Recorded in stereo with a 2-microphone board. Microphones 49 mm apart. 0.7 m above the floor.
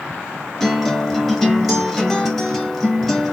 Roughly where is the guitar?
Centre.